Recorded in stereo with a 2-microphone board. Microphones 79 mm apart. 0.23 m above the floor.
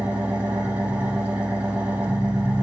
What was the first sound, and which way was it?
An engine running, 20° right (ahead or behind).